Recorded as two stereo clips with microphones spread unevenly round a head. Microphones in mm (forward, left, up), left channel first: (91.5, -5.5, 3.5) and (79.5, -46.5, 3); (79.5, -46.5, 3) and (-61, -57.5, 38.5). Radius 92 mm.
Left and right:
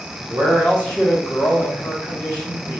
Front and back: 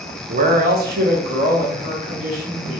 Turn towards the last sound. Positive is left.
turn(degrees=125)